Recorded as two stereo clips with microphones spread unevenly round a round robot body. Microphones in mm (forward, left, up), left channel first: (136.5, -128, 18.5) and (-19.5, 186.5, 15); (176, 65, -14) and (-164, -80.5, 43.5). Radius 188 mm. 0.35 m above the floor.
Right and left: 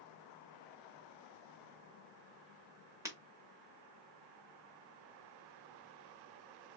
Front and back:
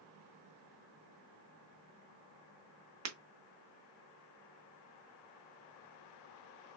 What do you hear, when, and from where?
3.0 s breaking glass: 170° right, 0.7 m